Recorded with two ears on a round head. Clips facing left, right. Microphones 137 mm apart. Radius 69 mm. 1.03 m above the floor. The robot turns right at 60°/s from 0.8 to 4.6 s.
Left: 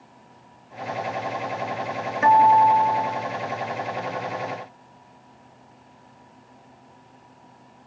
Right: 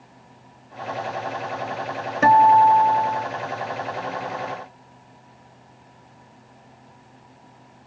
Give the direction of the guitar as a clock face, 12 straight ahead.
5 o'clock.